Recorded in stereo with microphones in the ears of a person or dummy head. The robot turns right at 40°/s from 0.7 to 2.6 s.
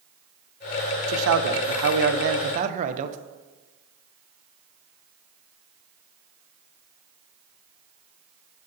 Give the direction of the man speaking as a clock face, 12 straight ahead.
3 o'clock.